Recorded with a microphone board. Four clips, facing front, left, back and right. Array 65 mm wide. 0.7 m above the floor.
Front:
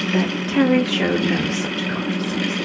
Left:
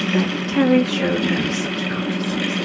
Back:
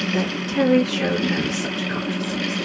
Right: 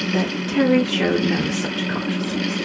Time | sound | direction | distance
0.1 | a woman speaking | 35° left | 1.2 m